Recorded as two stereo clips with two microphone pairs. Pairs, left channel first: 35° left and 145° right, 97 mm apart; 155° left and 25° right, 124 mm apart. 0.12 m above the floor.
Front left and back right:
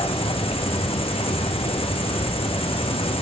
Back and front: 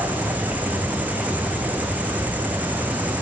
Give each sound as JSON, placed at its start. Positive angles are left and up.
{"t": 0.0, "sound": "an insect", "azimuth_deg": 50, "distance_m": 1.3}